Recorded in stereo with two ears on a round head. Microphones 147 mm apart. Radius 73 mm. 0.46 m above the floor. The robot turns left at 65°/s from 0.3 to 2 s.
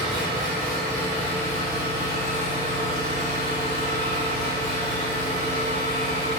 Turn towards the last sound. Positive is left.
turn(degrees=100)